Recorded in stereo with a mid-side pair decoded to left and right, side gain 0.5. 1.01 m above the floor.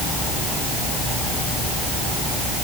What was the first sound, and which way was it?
Only background noise.